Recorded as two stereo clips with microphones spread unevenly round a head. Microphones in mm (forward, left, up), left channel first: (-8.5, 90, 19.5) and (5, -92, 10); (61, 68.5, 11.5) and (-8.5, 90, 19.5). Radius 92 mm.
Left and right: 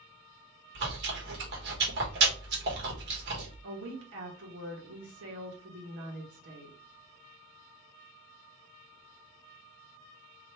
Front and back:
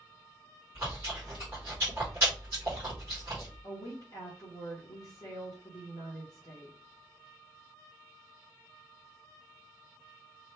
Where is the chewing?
120° right, 1.1 m.